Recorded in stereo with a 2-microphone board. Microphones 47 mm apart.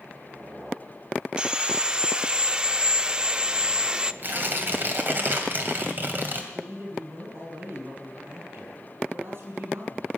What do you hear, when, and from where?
1.4 s sawing: 20° right (ahead or behind), 0.5 m
4.2 s tearing paper: 45° right (ahead or behind), 2 m
6.5 s a man speaking: 55° right (ahead or behind), 7 m